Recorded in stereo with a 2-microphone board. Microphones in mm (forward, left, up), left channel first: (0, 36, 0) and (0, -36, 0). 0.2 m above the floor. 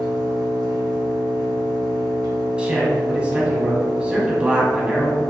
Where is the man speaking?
15° right (ahead or behind), 1.1 m.